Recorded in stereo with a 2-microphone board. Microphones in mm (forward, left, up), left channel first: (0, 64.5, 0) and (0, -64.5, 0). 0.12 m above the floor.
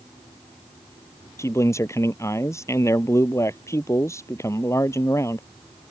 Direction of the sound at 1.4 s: 20° left (ahead or behind).